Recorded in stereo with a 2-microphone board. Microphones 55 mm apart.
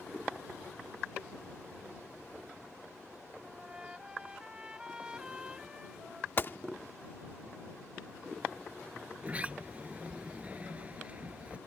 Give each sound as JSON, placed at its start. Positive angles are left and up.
{"t": 3.4, "sound": "a trumpet", "side_deg": -15}
{"t": 6.4, "sound": "a gunshot", "side_deg": 40}
{"t": 9.2, "sound": "a sliding door", "side_deg": -25}